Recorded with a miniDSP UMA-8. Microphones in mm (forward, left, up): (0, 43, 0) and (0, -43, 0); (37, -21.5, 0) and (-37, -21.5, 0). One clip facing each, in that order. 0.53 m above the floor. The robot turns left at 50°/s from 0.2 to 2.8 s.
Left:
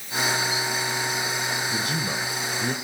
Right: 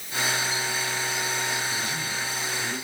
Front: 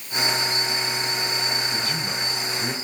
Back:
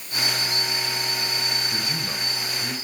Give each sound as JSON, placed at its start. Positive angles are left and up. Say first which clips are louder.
{"t": 1.7, "sound": "a man speaking", "louder": "left 3 dB, front 2 dB", "azimuth_deg": 115, "distance_m": 2.5}